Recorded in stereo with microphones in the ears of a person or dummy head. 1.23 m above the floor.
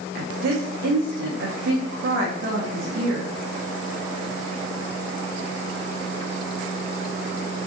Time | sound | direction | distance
0.1 | a woman speaking | 65° right (ahead or behind) | 0.5 m